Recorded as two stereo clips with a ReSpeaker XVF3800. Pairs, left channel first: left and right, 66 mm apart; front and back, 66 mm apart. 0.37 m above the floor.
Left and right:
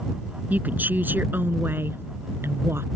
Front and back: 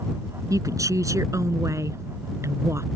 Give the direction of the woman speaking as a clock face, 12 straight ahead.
5 o'clock.